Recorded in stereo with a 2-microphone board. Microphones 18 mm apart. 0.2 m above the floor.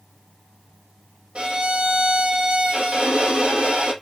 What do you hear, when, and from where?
1.4 s a violin: 85° right, 1.3 m